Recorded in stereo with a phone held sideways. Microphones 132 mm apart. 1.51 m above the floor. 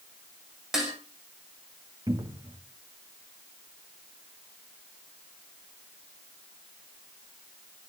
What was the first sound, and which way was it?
Dishes clattering, 5° right (ahead or behind).